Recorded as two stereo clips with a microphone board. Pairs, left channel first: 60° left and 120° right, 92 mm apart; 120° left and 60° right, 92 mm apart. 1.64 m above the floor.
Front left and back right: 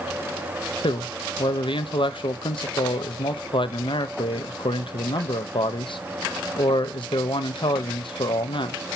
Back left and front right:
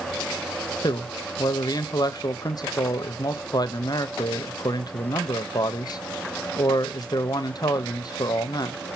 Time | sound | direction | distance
0.8 | a man speaking | 80° left | 0.7 m